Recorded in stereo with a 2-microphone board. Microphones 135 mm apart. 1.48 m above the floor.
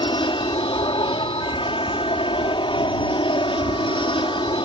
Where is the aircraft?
40° left (ahead or behind).